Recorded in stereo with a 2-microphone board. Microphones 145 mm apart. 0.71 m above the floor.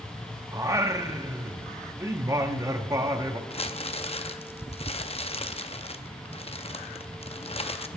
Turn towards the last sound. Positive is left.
turn(degrees=45)  # may be behind; listen again after turning